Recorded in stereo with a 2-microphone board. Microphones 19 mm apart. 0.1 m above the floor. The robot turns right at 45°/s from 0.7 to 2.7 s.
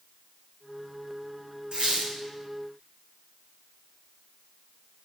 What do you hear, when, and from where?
1.7 s a squeak: 70° right (ahead or behind), 2.0 m; by 2.2 s 80° right, 2.0 m